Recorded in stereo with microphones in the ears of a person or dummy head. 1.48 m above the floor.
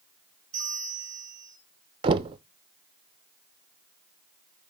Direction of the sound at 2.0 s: 35° right (ahead or behind).